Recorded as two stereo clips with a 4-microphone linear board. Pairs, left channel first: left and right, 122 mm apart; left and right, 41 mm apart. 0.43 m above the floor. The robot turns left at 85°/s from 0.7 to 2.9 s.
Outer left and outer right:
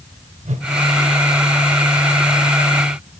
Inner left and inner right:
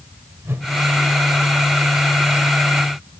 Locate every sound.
0.5 s a whoosh: 75° right (ahead or behind), 0.6 m